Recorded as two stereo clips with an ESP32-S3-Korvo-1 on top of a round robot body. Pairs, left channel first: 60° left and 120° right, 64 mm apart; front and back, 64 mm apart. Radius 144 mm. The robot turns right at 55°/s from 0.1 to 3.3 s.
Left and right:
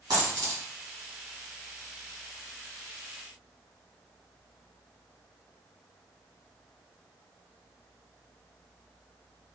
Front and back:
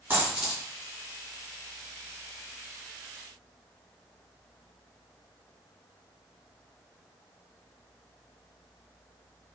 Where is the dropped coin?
125° right, 2.5 m; by 0.6 s 95° right, 2.5 m.